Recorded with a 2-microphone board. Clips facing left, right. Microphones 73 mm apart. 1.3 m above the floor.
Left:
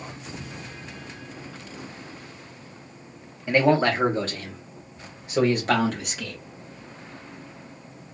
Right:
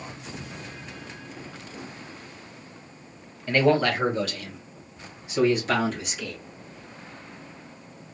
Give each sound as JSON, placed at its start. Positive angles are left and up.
{"t": 3.5, "sound": "a man speaking", "side_deg": 15, "distance_m": 1.1}